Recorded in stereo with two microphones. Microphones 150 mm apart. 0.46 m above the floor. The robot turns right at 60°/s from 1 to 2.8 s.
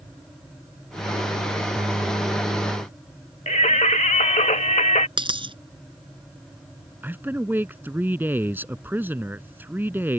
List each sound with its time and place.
3.5 s singing: 55° left (ahead or behind)
5.2 s a dropped coin: 35° right (ahead or behind)
7.0 s a man speaking: 15° right (ahead or behind)